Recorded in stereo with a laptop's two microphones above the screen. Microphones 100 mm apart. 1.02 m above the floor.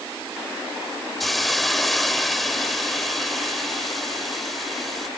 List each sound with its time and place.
1.2 s a hiss: centre (ahead or behind)